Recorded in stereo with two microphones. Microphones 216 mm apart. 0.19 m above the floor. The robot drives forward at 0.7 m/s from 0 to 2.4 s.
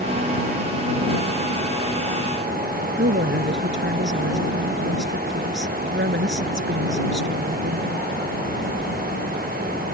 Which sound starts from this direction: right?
A woman speaking, at 3.0 s.